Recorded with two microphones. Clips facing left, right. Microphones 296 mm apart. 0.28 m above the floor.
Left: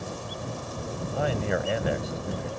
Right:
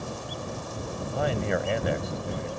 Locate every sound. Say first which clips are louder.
1.0 s a man speaking: even; centre (ahead or behind)